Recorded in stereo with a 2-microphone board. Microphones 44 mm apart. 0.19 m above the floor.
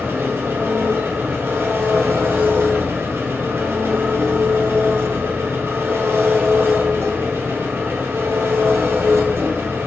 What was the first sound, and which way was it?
An engine running, 70° right (ahead or behind).